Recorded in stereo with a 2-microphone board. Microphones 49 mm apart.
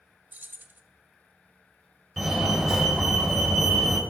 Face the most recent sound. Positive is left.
turn(degrees=-5)  # may be behind; listen again after turning